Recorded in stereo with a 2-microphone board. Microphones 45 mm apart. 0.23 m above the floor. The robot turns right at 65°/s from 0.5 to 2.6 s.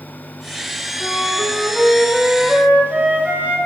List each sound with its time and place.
1.0 s a flute: 120° left, 0.8 m; by 3.6 s 140° right, 0.8 m